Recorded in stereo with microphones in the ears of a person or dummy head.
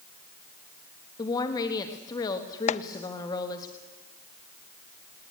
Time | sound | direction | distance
1.2 | a woman speaking | 25° left (ahead or behind) | 1.3 m
2.7 | chopping | 35° left (ahead or behind) | 0.5 m